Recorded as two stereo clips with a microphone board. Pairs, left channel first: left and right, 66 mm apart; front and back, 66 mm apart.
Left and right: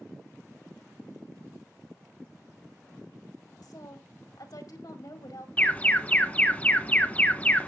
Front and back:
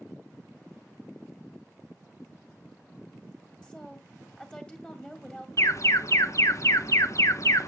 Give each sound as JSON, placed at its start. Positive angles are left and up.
{"t": 3.6, "sound": "a woman speaking", "azimuth_deg": 75, "distance_m": 2.0}
{"t": 5.6, "sound": "an alarm", "azimuth_deg": 25, "distance_m": 0.6}